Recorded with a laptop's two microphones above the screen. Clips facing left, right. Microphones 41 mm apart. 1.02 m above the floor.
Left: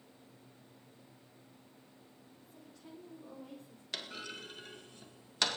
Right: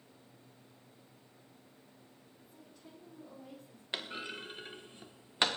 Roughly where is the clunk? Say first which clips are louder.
Right 3 dB; right.